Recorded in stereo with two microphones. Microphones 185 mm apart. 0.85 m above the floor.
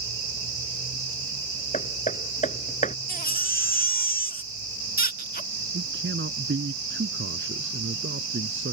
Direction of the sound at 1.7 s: 40° left (ahead or behind).